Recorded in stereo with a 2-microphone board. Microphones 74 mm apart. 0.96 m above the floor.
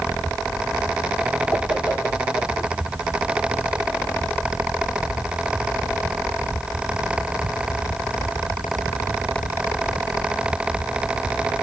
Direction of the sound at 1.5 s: 15° left (ahead or behind).